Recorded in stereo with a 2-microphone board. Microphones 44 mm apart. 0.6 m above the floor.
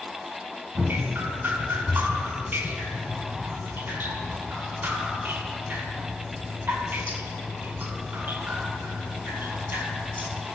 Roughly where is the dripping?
Right.